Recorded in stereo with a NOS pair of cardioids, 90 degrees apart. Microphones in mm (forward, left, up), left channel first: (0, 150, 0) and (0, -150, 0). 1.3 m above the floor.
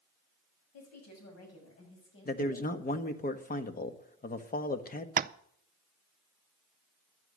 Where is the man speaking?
30° left, 1.4 m.